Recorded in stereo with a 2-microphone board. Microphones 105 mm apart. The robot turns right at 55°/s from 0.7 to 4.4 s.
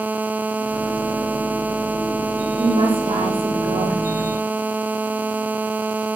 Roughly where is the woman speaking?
Behind right.